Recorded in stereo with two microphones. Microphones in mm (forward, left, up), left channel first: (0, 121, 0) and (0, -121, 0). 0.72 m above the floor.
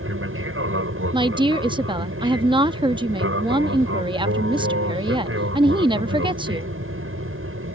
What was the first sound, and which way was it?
An aircraft, 60° right (ahead or behind).